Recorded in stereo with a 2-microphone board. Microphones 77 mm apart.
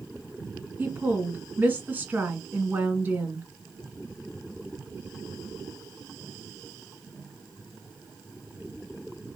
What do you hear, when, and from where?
0.8 s a woman speaking: 25° right (ahead or behind), 1.4 m